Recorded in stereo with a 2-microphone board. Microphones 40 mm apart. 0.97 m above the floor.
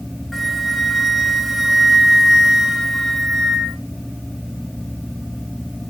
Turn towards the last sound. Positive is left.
turn(degrees=5)  # may be behind; listen again after turning